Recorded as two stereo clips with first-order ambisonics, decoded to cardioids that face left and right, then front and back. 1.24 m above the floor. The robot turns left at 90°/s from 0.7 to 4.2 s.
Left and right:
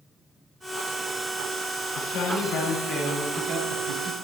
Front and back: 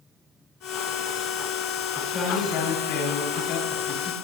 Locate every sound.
1.9 s a man speaking: 85° left, 9 m; by 4.1 s 115° right, 9 m